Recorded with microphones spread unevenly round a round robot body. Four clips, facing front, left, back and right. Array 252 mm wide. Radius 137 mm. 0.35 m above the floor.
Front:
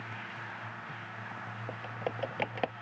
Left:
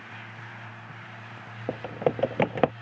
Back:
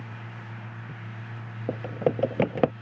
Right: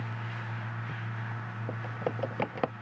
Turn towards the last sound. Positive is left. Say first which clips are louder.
# left 8 dB, back 12 dB
turn(degrees=155)